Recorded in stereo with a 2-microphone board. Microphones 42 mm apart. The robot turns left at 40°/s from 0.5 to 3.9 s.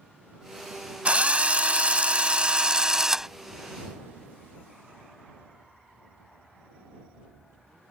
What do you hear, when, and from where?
1.1 s a drill: 70° right; by 3.3 s 160° right